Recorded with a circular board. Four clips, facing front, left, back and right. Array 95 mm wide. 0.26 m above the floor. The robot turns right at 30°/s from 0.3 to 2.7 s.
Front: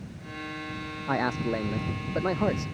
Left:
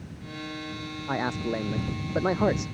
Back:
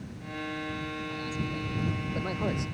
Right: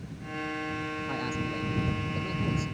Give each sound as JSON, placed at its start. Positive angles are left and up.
{"t": 1.1, "sound": "a man speaking", "azimuth_deg": 30}